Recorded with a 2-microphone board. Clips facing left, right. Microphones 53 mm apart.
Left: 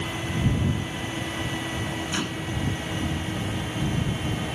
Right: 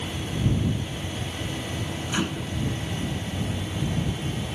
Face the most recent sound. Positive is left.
turn(degrees=-10)  # may be behind; listen again after turning